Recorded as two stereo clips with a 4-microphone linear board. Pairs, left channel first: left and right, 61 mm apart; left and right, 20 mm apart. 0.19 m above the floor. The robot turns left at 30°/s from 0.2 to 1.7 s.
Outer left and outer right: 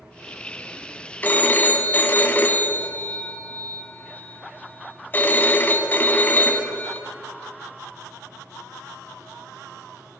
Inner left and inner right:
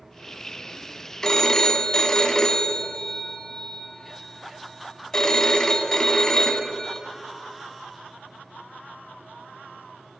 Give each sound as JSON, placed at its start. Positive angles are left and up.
{"t": 1.2, "sound": "a phone ringing", "side_deg": 30, "distance_m": 0.9}